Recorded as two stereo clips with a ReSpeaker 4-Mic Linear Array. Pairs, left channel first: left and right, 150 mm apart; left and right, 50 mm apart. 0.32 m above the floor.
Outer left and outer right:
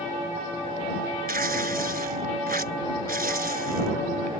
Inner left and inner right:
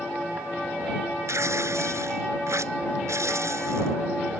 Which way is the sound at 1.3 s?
85° right.